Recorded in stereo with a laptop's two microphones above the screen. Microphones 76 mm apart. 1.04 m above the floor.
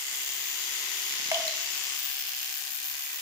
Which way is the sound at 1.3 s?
45° right (ahead or behind).